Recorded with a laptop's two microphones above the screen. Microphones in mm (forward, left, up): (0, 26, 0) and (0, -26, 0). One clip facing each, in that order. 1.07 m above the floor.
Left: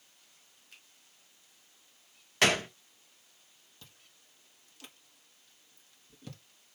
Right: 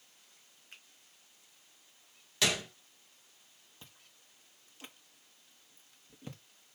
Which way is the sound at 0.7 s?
35° right (ahead or behind).